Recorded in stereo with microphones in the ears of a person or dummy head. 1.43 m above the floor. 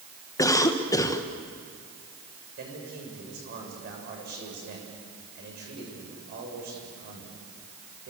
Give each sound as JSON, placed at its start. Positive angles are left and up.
{"t": 0.4, "sound": "a cough", "side_deg": 20, "distance_m": 1.3}
{"t": 2.6, "sound": "a man speaking", "side_deg": -50, "distance_m": 7.0}